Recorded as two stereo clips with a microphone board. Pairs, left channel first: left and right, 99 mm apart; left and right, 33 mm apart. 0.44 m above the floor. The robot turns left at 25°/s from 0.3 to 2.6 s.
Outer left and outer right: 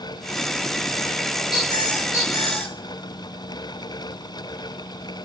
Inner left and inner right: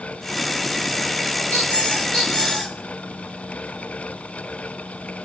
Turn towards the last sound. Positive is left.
turn(degrees=25)  # may be behind; listen again after turning